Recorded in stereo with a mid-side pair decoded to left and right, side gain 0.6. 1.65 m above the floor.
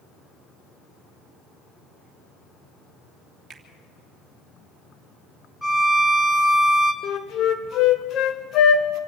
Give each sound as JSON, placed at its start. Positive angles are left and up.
{"t": 3.5, "sound": "a finger snap", "azimuth_deg": -25, "distance_m": 3.0}
{"t": 5.6, "sound": "a violin", "azimuth_deg": -5, "distance_m": 1.7}
{"t": 7.0, "sound": "a flute", "azimuth_deg": 55, "distance_m": 1.6}